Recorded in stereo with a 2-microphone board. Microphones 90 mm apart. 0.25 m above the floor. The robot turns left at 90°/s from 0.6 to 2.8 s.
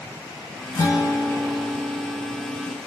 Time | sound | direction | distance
0.7 | a guitar | 120° left | 1.1 m